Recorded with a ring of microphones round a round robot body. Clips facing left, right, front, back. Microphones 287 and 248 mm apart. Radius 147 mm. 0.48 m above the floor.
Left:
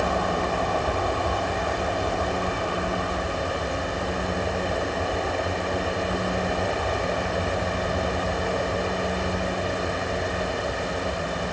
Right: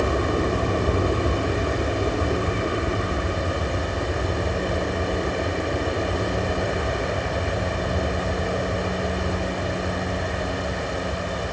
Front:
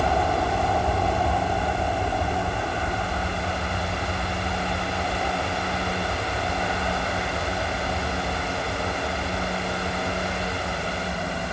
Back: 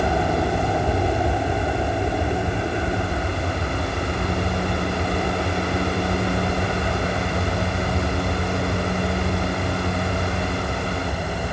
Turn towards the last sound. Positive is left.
turn(degrees=-155)